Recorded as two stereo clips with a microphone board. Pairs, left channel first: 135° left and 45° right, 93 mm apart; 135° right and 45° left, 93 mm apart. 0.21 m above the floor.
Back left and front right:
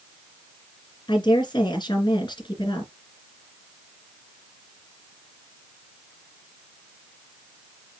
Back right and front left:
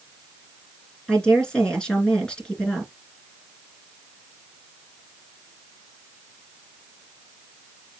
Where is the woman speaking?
145° left, 2.5 m.